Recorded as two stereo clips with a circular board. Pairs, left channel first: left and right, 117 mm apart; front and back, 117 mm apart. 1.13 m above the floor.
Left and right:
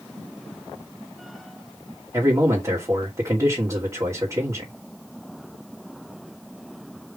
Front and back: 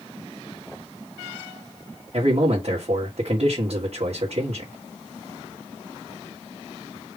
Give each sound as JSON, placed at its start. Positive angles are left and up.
{"t": 2.1, "sound": "a man speaking", "azimuth_deg": -150, "distance_m": 2.0}